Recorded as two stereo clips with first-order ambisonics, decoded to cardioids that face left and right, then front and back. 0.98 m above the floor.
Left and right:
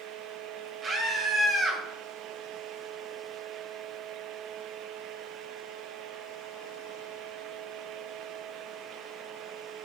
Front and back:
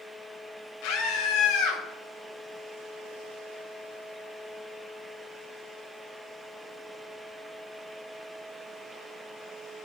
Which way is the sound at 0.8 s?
20° right.